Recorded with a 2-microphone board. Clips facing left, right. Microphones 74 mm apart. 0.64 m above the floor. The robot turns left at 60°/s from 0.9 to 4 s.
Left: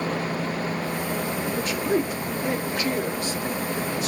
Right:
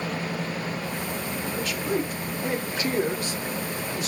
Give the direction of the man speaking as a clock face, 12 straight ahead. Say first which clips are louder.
Left 3 dB; 11 o'clock.